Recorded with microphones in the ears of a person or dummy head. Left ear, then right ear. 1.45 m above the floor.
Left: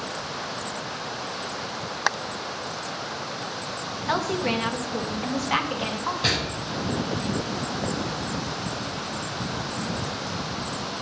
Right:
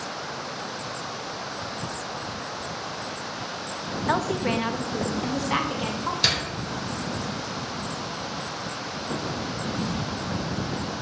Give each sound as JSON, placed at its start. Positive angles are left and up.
{"t": 4.1, "sound": "a woman speaking", "side_deg": -20, "distance_m": 1.4}
{"t": 6.2, "sound": "a door slam", "side_deg": -55, "distance_m": 4.5}